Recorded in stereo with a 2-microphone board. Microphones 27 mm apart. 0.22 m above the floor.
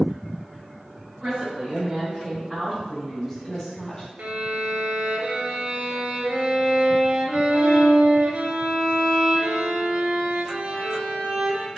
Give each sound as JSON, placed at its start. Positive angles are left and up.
{"t": 1.2, "sound": "a woman speaking", "side_deg": -45, "distance_m": 1.9}
{"t": 4.2, "sound": "a violin", "side_deg": -60, "distance_m": 0.5}